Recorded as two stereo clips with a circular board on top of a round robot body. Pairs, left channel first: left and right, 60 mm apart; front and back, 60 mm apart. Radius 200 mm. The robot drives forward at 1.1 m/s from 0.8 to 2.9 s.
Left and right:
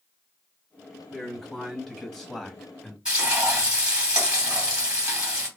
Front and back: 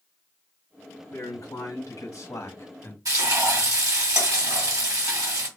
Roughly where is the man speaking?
Ahead.